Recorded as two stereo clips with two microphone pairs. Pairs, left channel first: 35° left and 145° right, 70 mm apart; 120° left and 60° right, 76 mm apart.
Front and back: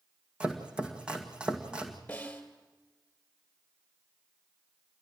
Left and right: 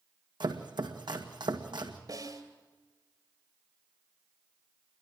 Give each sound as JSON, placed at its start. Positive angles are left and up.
{"t": 0.4, "sound": "chopping", "azimuth_deg": -70, "distance_m": 1.7}
{"t": 2.1, "sound": "a snare drum", "azimuth_deg": -35, "distance_m": 2.5}